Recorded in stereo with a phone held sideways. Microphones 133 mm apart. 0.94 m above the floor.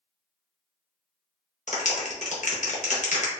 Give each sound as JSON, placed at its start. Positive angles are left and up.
{"t": 1.7, "sound": "a clap", "side_deg": 65, "distance_m": 0.7}